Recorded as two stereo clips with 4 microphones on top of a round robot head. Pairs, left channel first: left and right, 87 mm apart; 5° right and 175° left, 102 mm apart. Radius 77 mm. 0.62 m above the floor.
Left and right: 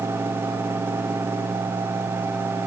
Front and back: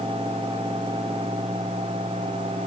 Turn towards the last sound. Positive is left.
No sound to turn to.